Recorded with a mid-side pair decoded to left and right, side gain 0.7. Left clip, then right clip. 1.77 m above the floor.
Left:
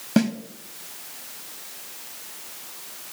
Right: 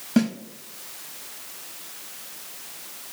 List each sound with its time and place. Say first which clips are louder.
0.2 s a snare drum: left 1 dB; 20° left, 1.4 m